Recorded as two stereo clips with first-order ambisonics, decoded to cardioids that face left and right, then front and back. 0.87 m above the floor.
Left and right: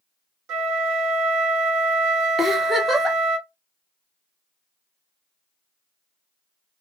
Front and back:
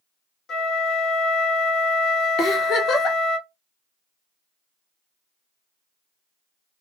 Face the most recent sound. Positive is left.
turn(degrees=-5)